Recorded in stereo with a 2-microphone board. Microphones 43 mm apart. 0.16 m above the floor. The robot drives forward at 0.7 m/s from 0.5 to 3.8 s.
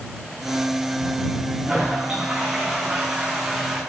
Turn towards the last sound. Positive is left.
turn(degrees=-10)  # may be behind; listen again after turning